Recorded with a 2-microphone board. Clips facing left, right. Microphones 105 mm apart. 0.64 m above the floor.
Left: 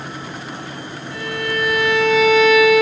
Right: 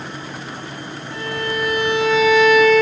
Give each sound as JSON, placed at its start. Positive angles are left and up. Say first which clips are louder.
{"t": 1.1, "sound": "a violin", "louder": "even", "side_deg": -25, "distance_m": 1.1}